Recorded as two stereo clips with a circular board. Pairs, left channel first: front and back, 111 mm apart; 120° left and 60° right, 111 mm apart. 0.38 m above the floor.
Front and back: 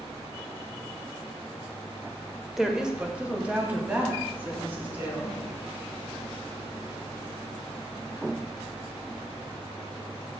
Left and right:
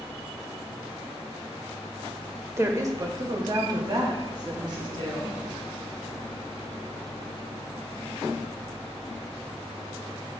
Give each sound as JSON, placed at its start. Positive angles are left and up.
{"t": 2.6, "sound": "a woman speaking", "azimuth_deg": -95, "distance_m": 0.9}